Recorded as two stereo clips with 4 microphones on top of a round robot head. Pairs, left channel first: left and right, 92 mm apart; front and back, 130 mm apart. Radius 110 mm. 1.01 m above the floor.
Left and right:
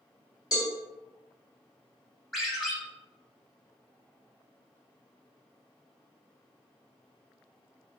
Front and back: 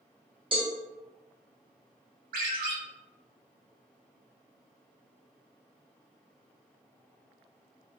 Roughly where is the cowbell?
Behind left.